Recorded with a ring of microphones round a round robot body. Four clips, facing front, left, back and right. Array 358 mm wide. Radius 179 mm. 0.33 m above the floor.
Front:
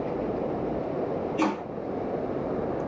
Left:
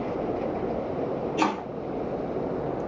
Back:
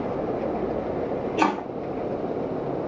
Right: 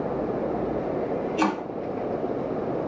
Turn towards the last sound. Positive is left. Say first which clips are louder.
# even, back 5 dB
turn(degrees=-175)